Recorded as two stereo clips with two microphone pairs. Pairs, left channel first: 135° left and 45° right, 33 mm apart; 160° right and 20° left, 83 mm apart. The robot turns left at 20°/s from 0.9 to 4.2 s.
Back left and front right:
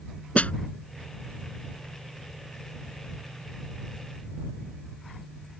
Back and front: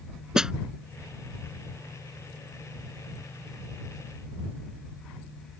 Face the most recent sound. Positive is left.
turn(degrees=35)